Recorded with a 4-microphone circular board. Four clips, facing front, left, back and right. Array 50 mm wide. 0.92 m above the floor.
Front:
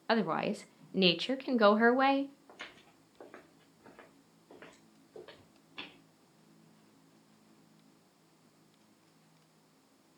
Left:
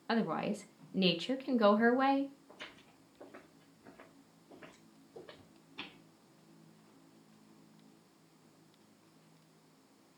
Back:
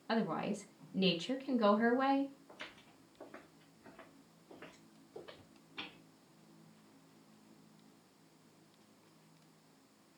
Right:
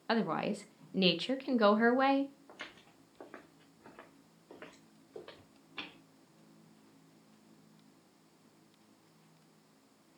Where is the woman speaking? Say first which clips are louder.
Right 1 dB, front 5 dB; 15° right, 0.7 m.